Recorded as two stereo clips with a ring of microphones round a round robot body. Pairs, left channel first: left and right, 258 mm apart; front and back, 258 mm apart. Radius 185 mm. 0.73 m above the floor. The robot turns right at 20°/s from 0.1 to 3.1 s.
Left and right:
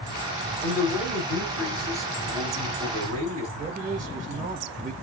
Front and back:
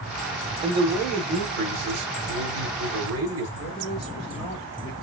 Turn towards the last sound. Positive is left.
turn(degrees=-65)